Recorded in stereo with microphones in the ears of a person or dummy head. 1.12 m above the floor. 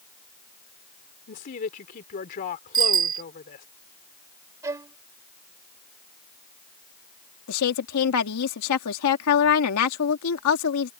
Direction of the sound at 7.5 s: 75° left (ahead or behind).